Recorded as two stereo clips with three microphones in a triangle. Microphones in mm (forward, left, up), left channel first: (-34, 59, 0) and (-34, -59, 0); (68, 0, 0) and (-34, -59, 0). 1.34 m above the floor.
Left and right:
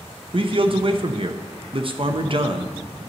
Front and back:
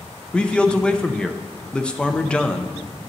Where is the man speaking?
50° right, 0.7 m.